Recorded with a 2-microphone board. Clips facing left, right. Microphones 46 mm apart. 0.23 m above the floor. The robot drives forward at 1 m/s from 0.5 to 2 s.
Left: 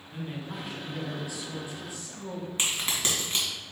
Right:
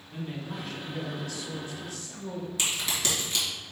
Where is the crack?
35° left (ahead or behind), 2.5 m.